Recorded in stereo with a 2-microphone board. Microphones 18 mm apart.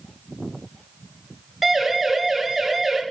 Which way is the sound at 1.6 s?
15° right (ahead or behind).